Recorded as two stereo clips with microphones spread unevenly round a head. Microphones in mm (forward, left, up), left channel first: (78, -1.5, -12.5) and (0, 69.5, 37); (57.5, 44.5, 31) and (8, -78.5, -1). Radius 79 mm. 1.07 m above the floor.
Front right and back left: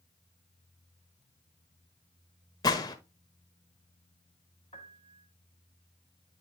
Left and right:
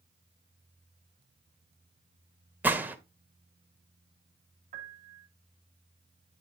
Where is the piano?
110° right, 1.1 m.